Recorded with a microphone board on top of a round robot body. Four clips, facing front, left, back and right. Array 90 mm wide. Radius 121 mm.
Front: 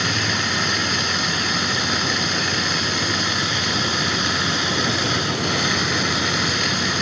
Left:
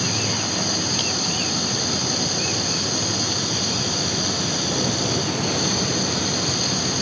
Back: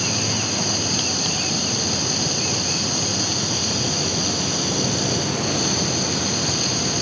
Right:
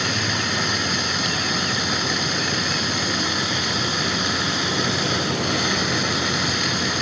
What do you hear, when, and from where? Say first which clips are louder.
0.0 s running water: right 1 dB, front 2 dB; 30° right